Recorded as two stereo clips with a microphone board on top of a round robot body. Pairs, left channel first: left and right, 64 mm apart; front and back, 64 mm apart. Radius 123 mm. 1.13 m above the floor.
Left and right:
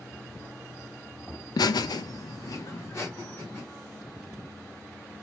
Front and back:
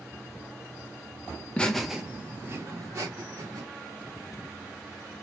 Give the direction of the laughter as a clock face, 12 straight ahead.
10 o'clock.